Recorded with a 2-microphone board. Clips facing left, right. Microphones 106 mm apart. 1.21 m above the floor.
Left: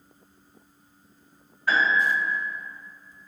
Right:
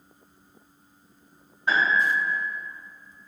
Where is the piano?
25° right (ahead or behind), 0.6 m.